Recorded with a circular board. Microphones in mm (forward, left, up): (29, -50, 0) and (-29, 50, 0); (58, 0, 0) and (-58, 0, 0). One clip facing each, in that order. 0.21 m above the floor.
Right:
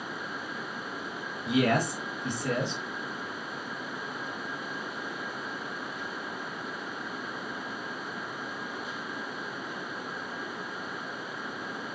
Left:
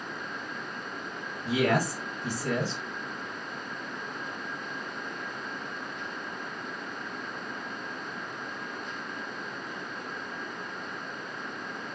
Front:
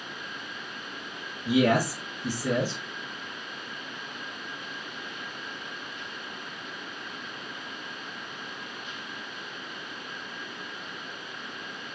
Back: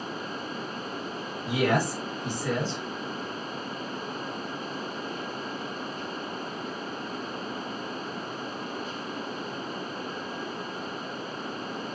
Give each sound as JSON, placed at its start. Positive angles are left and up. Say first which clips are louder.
{"t": 1.4, "sound": "a man speaking", "louder": "even, front 3 dB", "azimuth_deg": 80, "distance_m": 1.7}